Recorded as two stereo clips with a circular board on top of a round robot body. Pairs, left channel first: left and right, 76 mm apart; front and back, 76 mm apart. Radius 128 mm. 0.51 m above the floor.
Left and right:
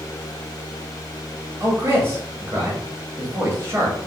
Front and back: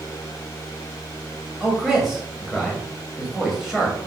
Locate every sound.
1.6 s a man speaking: 90° right, 1.0 m